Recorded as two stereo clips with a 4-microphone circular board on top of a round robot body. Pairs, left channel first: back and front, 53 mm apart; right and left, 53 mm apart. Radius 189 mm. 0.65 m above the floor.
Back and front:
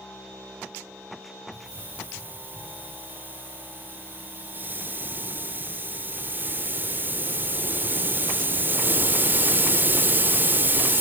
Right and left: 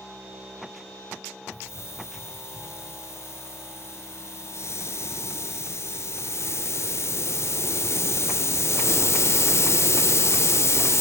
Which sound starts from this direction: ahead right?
A hiss, at 1.5 s.